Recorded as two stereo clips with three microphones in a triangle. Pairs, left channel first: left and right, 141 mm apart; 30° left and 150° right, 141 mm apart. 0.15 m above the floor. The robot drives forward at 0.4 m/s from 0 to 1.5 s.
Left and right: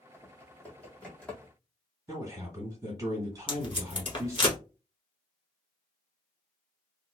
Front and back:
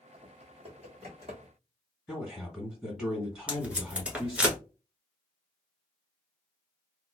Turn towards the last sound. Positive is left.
turn(degrees=130)